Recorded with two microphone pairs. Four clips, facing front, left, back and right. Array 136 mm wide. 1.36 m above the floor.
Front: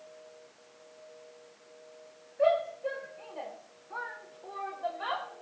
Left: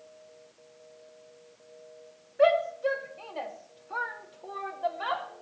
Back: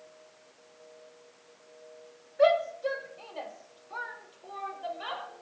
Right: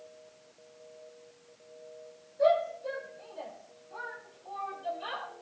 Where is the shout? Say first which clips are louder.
Left 3 dB, back 3 dB; 140° left, 3 m; by 5.3 s 75° left, 3.5 m.